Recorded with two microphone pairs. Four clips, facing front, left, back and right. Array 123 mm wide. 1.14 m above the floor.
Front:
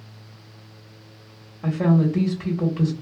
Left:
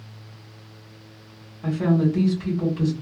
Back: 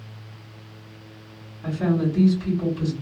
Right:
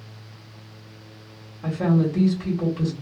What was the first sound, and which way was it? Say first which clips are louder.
A woman speaking: left 1 dB, front 3 dB; 15° right.